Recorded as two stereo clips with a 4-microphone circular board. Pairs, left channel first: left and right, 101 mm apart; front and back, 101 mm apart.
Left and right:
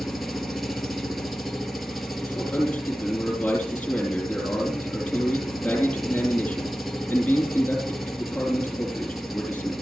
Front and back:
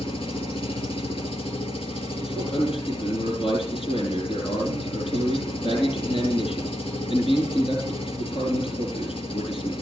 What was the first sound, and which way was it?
An engine running, straight ahead.